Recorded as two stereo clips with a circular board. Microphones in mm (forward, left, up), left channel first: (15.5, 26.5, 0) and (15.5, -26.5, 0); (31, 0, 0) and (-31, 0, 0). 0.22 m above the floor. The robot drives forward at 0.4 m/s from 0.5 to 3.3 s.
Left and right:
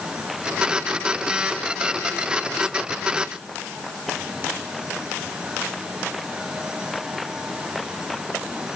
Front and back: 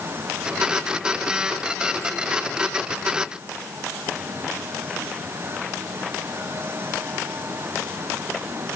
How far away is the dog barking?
No dog barking in this recording.